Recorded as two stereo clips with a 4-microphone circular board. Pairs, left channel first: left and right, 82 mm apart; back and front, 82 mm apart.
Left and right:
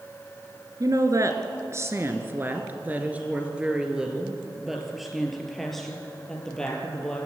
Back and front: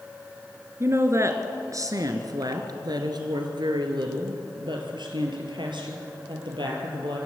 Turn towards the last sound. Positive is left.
turn(degrees=10)